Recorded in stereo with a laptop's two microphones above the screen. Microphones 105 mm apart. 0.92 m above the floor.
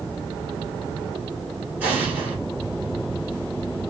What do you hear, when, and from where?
1.8 s an explosion: 15° right (ahead or behind), 1.2 m